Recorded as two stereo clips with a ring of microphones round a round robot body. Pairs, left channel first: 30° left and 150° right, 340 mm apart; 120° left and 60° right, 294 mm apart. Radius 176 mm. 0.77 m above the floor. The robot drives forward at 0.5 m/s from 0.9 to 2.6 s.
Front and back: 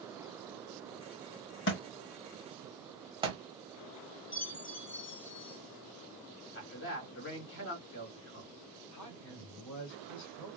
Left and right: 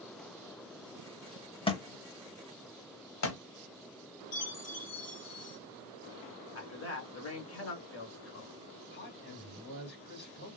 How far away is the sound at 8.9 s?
About 2 m.